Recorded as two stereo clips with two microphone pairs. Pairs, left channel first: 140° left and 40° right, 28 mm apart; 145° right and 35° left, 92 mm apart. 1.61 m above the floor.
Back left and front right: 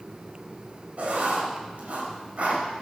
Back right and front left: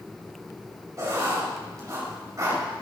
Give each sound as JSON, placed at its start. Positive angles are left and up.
{"t": 1.0, "sound": "writing", "azimuth_deg": -15, "distance_m": 4.0}